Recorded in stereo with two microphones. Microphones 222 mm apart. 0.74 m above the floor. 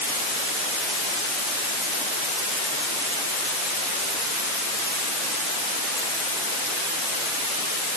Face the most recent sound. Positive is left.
No sound to turn to.